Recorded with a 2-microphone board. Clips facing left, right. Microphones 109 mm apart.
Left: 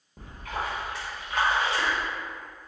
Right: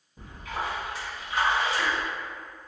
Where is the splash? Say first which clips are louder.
Even; 60° left (ahead or behind), 1.5 m.